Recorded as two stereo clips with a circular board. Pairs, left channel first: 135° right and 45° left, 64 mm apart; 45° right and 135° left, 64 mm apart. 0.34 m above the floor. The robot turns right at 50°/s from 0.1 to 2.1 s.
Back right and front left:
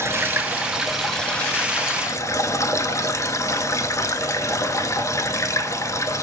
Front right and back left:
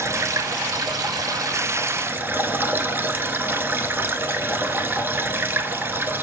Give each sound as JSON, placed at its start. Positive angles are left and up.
{"t": 0.0, "sound": "running water", "azimuth_deg": 90, "distance_m": 0.9}